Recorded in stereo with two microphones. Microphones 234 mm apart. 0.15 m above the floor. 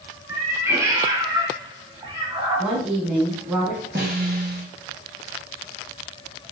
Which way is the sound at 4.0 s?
45° right (ahead or behind).